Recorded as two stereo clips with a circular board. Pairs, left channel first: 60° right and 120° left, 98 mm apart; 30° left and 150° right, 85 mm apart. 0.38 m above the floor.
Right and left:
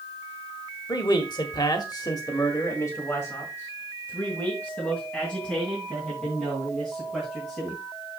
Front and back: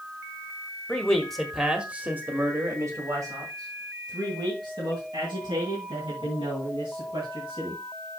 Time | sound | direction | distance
0.9 | a man speaking | 45° right | 1.6 m